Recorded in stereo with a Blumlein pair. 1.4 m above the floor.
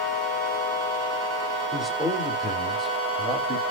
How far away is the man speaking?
About 2.5 m.